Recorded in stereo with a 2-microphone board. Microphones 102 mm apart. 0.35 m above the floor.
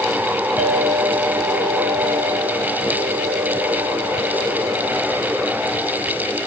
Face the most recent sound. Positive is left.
turn(degrees=-20)  # may be behind; listen again after turning